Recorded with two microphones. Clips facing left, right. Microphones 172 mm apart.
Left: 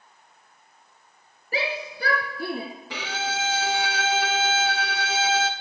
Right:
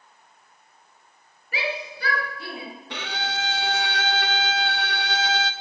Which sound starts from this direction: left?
A shout, at 1.5 s.